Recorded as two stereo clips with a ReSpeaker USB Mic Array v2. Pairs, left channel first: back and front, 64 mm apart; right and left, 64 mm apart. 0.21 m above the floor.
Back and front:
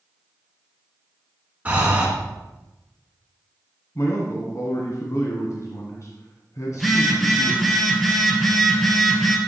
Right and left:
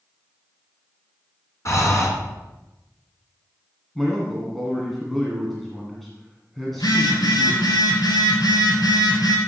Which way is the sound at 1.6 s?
65° right.